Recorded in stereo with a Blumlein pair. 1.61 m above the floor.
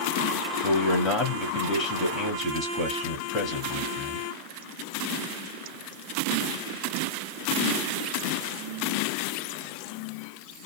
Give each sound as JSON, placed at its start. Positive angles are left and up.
{"t": 0.6, "sound": "a man speaking", "azimuth_deg": 25, "distance_m": 0.9}